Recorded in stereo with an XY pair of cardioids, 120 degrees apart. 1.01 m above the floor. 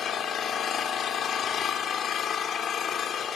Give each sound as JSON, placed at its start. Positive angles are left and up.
{"t": 0.0, "sound": "an engine running", "azimuth_deg": 55, "distance_m": 2.5}